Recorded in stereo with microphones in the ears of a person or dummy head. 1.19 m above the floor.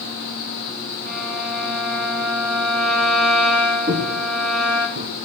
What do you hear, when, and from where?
1.1 s a violin: 60° right (ahead or behind), 3.5 m
3.9 s footsteps: 50° right (ahead or behind), 2 m; by 5.1 s 65° right (ahead or behind), 4 m